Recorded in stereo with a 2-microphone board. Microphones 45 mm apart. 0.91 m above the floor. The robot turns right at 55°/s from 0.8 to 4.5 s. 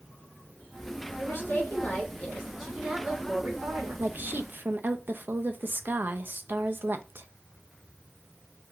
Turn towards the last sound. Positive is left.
turn(degrees=-50)  # may be behind; listen again after turning